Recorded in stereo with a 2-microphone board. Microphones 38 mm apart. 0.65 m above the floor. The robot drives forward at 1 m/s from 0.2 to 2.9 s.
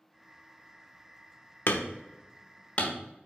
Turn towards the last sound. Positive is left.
turn(degrees=40)  # may be behind; listen again after turning